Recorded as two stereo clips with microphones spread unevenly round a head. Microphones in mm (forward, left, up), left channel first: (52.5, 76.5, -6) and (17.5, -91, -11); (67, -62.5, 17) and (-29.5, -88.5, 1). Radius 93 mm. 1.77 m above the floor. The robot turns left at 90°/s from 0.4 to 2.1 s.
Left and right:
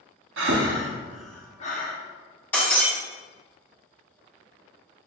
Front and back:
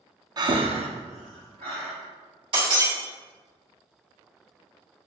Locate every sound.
0.4 s breathing: 115° right, 0.7 m; by 1.9 s 105° left, 0.7 m
2.5 s breaking glass: 155° left, 1.7 m